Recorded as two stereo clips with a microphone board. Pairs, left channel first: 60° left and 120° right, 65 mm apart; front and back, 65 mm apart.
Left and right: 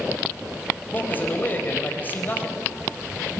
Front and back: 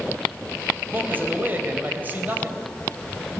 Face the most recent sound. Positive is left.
turn(degrees=120)